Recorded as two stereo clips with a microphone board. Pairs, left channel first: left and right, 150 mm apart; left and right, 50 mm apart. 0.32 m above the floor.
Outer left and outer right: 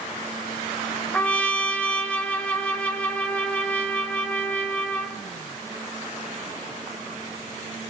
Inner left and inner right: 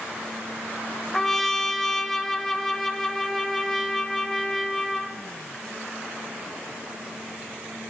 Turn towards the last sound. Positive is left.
turn(degrees=10)  # may be behind; listen again after turning